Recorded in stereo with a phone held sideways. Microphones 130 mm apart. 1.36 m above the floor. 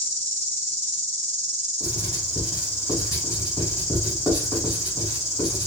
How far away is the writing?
About 2 m.